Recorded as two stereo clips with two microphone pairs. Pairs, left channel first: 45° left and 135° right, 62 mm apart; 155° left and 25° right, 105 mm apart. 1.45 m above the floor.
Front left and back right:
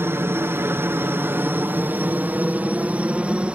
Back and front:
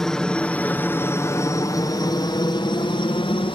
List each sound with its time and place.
0.0 s a helicopter: 120° right; by 3.6 s 155° left